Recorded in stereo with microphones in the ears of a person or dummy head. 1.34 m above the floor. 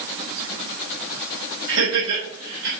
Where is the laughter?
70° right (ahead or behind), 6.5 m; by 2.7 s 75° right (ahead or behind), 6 m.